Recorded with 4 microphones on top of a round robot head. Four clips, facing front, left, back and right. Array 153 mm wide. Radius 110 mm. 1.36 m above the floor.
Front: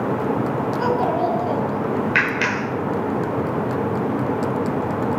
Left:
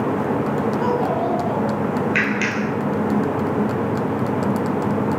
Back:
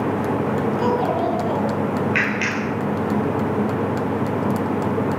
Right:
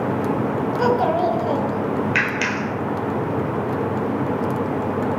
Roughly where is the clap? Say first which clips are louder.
Left 1 dB, front 1 dB; ahead.